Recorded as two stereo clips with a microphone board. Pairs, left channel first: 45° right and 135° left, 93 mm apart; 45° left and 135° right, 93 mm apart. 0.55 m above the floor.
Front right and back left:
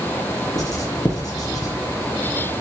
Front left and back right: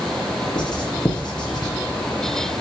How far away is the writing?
About 5.5 m.